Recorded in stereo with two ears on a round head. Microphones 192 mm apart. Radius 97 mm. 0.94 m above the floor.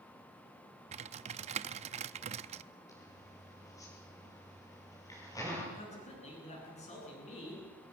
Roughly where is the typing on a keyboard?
Right.